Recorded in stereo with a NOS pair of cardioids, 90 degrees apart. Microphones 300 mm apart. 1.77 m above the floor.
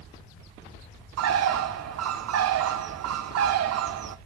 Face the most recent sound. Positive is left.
turn(degrees=-55)